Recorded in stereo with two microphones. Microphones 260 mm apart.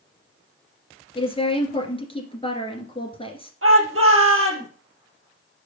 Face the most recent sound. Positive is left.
turn(degrees=-60)  # may be behind; listen again after turning